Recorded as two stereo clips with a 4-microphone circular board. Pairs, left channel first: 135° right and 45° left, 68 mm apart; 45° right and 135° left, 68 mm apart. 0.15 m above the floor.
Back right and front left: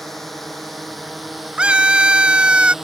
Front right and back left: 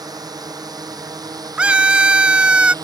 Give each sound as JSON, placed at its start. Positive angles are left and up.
{"t": 0.0, "sound": "a drone", "azimuth_deg": 140}
{"t": 1.6, "sound": "a scream", "azimuth_deg": 90}